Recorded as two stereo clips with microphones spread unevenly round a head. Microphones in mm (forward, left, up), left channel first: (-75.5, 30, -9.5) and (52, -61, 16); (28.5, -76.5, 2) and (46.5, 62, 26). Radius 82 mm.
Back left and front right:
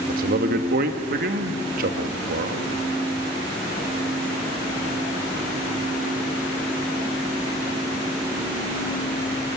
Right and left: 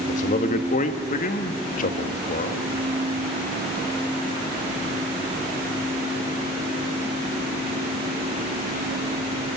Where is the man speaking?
65° right, 1.7 m.